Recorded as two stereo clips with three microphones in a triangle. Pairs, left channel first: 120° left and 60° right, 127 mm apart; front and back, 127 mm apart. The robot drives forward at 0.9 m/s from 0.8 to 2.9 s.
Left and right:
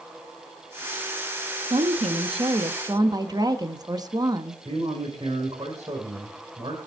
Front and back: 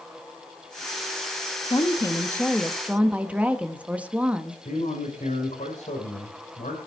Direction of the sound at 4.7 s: 5° right.